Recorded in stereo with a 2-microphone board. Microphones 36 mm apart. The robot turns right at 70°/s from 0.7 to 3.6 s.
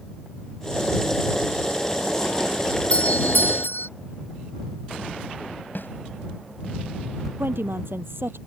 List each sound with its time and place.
2.9 s a doorbell: 35° left; by 3.9 s 85° left
5.8 s a snare drum: 65° left (ahead or behind)
7.4 s a woman speaking: 85° right